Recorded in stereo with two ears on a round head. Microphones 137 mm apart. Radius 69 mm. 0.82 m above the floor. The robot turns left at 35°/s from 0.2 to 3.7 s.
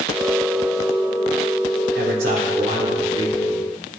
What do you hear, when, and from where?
1.9 s a man speaking: 100° right, 3.5 m; by 3.6 s 160° right, 3.5 m